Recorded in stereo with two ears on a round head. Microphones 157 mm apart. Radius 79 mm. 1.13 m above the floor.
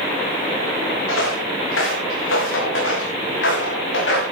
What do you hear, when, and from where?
1.1 s footsteps: 80° left, 9 m; by 4.2 s 75° left (ahead or behind), 8 m